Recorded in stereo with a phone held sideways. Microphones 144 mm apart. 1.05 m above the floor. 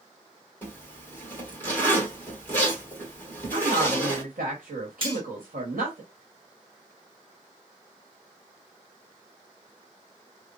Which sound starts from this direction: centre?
A zipper, at 0.6 s.